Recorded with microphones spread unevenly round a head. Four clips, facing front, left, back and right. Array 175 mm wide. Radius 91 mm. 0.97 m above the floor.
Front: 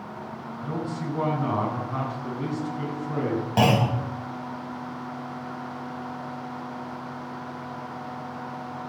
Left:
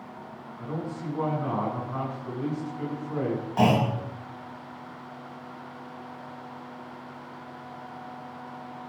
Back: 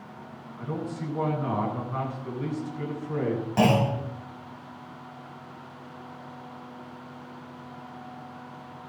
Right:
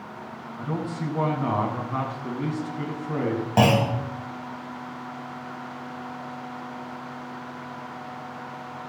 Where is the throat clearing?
I don't hear throat clearing.